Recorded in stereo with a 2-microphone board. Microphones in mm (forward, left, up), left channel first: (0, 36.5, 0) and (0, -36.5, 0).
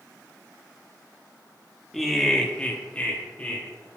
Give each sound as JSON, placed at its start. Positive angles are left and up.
{"t": 1.9, "sound": "laughter", "side_deg": 0, "distance_m": 1.1}